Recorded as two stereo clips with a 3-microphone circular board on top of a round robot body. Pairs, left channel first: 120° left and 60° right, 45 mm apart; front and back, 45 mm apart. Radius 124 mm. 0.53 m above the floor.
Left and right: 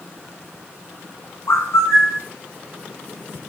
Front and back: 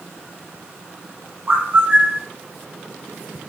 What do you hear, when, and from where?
1.5 s a bird: 125° left, 0.8 m